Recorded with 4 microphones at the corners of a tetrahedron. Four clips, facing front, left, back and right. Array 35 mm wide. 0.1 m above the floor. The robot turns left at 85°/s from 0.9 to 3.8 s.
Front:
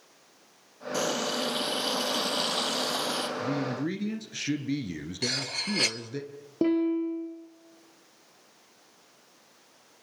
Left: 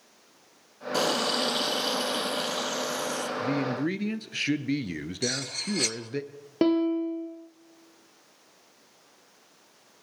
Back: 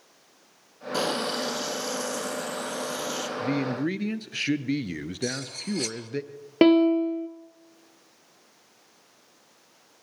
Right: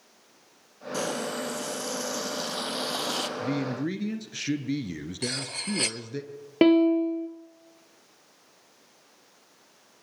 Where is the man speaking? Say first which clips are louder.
Left 1 dB, back 3 dB; 170° left, 1.6 m; by 6.2 s 135° left, 1.6 m.